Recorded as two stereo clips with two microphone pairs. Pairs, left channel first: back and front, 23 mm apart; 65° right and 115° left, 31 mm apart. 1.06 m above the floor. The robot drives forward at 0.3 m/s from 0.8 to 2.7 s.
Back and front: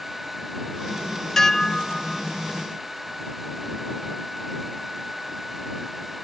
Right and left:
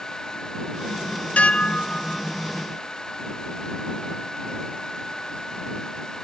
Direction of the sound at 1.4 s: 110° right.